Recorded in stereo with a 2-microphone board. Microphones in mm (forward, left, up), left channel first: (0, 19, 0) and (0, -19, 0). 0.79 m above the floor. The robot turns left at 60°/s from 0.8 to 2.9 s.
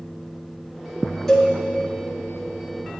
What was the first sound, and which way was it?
A cowbell, 15° left (ahead or behind).